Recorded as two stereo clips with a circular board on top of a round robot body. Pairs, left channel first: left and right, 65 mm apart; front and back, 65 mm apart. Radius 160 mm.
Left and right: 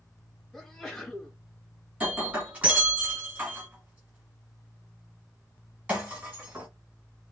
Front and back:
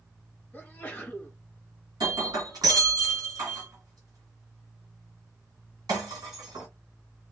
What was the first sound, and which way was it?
A sneeze, 15° left.